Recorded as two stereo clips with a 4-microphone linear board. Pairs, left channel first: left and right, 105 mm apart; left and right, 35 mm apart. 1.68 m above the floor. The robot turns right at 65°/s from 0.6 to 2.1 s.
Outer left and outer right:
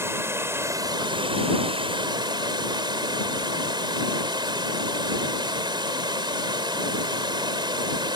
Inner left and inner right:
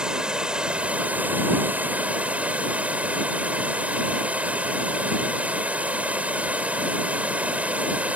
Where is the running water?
150° right; by 8.2 s 55° right.